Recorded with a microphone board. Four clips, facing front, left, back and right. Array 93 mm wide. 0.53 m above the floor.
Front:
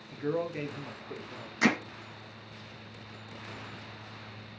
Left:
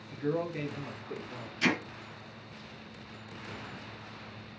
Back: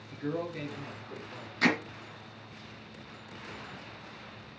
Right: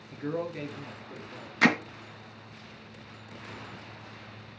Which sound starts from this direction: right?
Hammering, at 1.6 s.